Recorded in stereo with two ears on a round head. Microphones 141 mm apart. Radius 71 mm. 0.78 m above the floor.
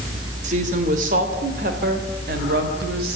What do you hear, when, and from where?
0.4 s a woman speaking: 45° right (ahead or behind), 3 m; by 3.2 s 65° right (ahead or behind), 4.5 m